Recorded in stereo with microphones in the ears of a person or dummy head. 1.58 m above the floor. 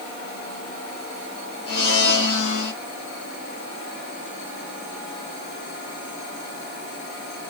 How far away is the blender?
About 1.6 m.